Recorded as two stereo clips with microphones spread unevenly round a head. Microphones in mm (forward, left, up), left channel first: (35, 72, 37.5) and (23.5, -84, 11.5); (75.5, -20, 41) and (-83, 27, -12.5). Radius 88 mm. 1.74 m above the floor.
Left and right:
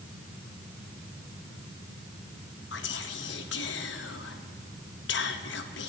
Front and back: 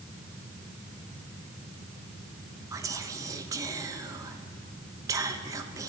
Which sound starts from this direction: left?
Whispering, at 2.7 s.